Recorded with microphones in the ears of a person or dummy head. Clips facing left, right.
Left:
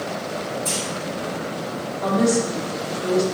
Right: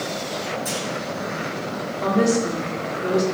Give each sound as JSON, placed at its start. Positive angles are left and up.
{"t": 0.7, "sound": "a clunk", "side_deg": -30, "distance_m": 1.3}
{"t": 2.0, "sound": "a woman speaking", "side_deg": -40, "distance_m": 1.1}